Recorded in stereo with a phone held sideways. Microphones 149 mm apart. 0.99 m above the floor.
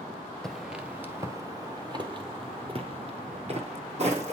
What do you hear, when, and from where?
0.4 s footsteps: 5° left (ahead or behind), 1.0 m; by 4.3 s 45° right (ahead or behind), 2.5 m